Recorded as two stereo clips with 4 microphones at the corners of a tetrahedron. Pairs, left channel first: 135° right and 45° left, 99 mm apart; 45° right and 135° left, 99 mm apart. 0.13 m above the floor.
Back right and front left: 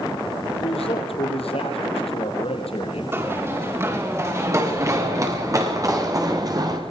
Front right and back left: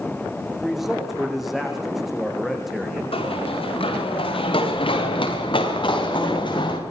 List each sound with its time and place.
0.6 s a man speaking: 140° right, 5.5 m
3.1 s running footsteps: 20° right, 9 m; by 6.8 s 5° right, 7 m